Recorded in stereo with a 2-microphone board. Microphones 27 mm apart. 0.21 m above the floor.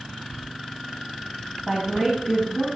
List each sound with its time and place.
1.7 s a woman speaking: 5° left (ahead or behind), 1.5 m; by 2.7 s 10° right (ahead or behind), 2.0 m